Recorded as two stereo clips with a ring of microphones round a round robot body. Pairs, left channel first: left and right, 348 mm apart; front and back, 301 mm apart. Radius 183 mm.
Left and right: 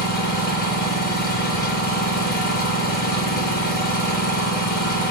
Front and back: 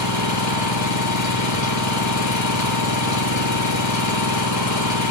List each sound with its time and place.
0.0 s an engine running: 25° left, 8 m